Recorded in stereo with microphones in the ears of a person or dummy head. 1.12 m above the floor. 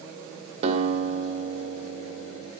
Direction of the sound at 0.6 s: 40° right (ahead or behind).